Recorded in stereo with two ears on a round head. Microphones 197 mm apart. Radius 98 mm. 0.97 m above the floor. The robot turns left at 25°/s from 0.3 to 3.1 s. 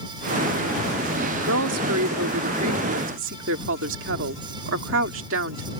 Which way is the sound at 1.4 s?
75° right.